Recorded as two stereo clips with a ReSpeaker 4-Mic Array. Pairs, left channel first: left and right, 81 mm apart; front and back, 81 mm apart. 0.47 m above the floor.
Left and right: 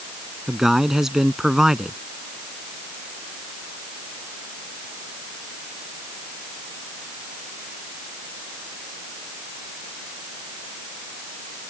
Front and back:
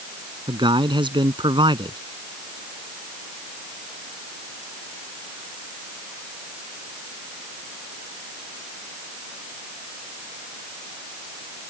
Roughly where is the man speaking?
Behind.